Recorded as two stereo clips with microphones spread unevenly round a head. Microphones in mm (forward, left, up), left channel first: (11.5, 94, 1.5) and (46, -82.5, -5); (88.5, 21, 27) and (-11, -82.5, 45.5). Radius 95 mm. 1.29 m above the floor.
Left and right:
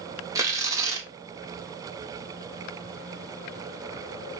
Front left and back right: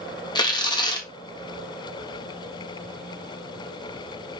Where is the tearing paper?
10° right, 1.1 m.